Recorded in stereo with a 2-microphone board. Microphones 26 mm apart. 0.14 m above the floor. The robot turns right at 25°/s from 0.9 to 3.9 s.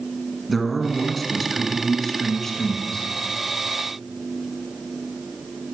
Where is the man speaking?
5° left (ahead or behind), 1.3 m; by 3.1 s 20° left (ahead or behind), 1.3 m.